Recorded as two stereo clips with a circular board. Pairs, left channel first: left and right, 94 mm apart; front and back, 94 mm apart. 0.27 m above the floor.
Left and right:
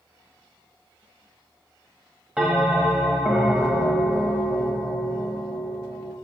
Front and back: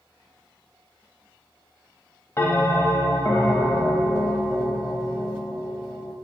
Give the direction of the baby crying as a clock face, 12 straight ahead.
I don't hear a baby crying.